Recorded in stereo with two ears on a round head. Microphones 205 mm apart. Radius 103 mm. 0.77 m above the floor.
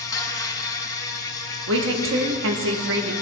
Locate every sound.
0.0 s an insect: 15° left (ahead or behind), 0.8 m
1.7 s a woman speaking: 60° right (ahead or behind), 1.1 m